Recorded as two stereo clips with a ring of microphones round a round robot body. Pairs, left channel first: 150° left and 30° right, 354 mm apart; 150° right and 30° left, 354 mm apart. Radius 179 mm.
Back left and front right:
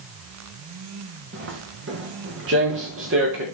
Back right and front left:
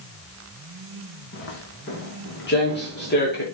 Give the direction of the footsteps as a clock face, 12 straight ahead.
3 o'clock.